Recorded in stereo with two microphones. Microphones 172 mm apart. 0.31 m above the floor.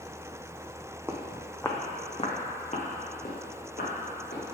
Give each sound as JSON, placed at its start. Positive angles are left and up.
{"t": 1.1, "sound": "footsteps", "side_deg": -15, "distance_m": 1.0}